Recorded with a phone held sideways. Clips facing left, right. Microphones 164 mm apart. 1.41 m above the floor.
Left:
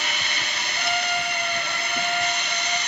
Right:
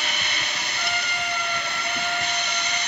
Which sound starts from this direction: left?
A trumpet, at 0.8 s.